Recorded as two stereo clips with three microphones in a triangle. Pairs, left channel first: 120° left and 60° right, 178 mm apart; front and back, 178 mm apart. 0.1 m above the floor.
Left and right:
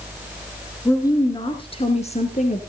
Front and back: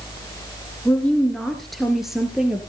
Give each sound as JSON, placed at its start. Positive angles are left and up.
{"t": 0.8, "sound": "a woman speaking", "azimuth_deg": 65, "distance_m": 1.3}